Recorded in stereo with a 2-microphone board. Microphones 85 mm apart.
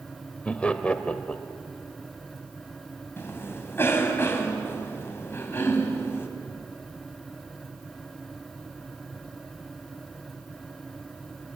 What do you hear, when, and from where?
0.5 s laughter: 15° left (ahead or behind), 1.1 m
3.2 s a cough: 30° left (ahead or behind), 2.5 m